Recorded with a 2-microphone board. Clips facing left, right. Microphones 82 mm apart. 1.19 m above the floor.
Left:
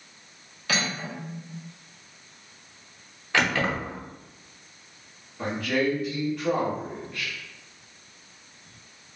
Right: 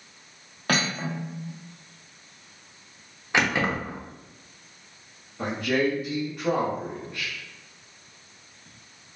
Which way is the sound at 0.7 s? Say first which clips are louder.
Right 3 dB; 50° right (ahead or behind).